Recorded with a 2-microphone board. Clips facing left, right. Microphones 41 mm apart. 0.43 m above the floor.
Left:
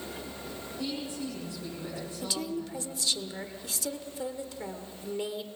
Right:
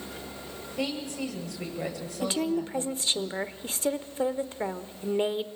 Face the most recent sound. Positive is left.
turn(degrees=-35)  # may be behind; listen again after turning